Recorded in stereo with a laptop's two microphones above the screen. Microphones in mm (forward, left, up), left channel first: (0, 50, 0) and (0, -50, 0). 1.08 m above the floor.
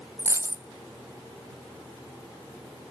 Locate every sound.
0.2 s a dropped coin: 25° right (ahead or behind), 0.5 m